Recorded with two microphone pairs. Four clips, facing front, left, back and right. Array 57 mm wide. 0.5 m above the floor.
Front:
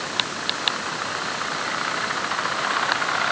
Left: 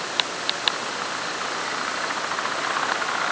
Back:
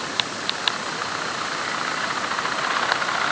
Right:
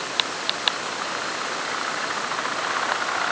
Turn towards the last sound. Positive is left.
No sound to turn to.